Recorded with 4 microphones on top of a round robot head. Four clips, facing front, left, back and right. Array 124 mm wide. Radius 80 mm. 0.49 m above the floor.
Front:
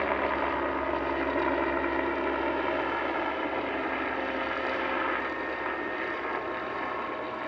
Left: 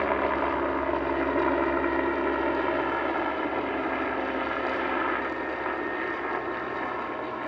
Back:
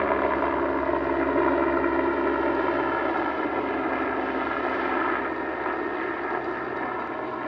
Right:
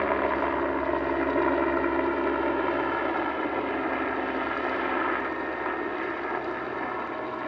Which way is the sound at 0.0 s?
175° right.